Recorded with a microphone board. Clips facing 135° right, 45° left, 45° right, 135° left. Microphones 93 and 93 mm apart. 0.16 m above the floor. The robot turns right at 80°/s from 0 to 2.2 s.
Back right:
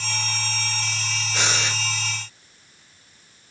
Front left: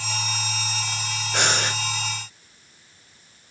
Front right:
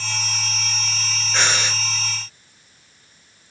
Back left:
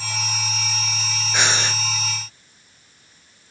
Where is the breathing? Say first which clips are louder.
Front left 3 dB, even; 55° left, 1.6 m; by 1.8 s 90° left, 1.6 m.